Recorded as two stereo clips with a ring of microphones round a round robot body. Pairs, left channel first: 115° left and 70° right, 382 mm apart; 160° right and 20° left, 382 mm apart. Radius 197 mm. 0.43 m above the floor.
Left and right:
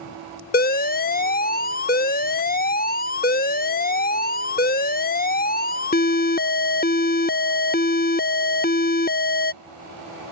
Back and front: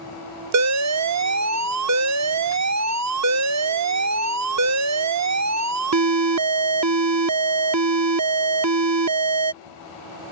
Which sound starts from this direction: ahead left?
An alarm, at 0.5 s.